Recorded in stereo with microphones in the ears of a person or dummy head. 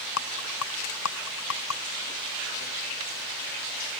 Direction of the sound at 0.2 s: 85° left.